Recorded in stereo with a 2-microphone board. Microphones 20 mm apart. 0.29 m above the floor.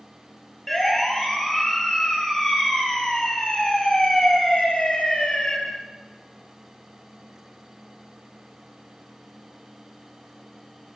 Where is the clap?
I don't hear a clap.